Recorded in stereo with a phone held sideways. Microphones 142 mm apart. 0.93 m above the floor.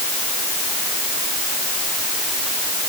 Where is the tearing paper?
No tearing paper in this recording.